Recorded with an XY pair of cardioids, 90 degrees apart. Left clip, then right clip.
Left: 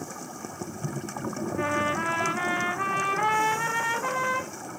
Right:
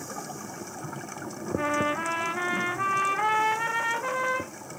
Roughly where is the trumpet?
Ahead.